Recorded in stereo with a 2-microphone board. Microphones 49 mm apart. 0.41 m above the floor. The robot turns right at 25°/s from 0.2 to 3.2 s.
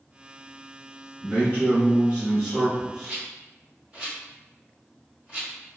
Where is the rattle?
20° right (ahead or behind), 1.8 m.